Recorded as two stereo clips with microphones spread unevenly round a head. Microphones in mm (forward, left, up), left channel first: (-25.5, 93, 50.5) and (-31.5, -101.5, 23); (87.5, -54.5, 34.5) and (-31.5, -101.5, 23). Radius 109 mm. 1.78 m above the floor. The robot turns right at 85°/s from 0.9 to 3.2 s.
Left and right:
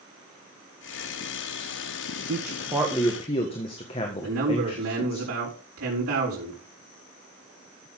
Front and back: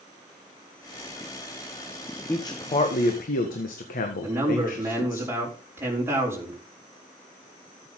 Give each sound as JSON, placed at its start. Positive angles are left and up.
{"t": 2.3, "sound": "a man speaking", "azimuth_deg": -50, "distance_m": 1.6}
{"t": 4.2, "sound": "a man speaking", "azimuth_deg": -85, "distance_m": 5.5}